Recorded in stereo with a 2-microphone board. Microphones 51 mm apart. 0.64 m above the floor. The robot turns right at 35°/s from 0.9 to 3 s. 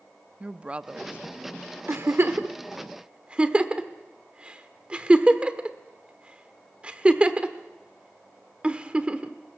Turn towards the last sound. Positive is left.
turn(degrees=-20)  # may be behind; listen again after turning